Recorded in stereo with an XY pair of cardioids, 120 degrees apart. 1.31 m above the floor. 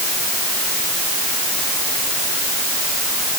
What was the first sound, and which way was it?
Only background noise.